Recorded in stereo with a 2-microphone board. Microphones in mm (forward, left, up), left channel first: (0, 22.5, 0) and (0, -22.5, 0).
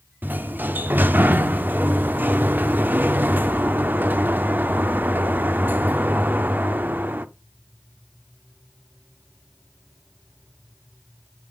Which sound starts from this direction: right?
A sliding door, at 0.2 s.